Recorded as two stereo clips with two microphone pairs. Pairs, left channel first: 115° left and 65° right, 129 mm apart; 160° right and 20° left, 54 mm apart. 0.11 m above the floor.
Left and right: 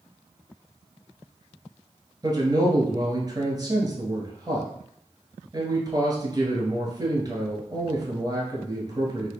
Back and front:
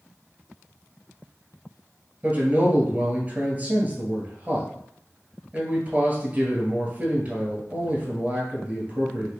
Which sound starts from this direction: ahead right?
A man speaking, at 2.2 s.